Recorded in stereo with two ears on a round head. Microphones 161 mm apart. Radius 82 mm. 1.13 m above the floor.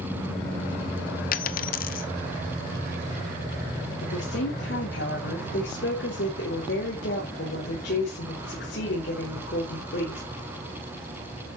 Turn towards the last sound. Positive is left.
turn(degrees=70)  # may be behind; listen again after turning